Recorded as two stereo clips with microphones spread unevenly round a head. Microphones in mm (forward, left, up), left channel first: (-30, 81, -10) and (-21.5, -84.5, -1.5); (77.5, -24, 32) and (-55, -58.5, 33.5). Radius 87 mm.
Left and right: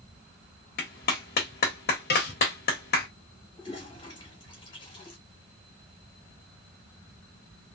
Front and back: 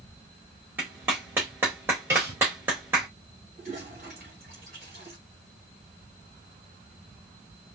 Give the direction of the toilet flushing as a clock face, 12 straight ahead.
7 o'clock.